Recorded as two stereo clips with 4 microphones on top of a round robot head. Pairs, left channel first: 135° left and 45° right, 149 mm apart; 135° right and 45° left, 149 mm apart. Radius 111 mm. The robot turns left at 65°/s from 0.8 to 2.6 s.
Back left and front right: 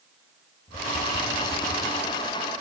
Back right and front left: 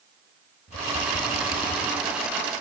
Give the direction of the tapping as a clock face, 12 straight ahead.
6 o'clock.